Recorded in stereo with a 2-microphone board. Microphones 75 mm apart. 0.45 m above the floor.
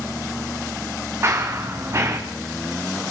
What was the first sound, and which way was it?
Running footsteps, 40° right (ahead or behind).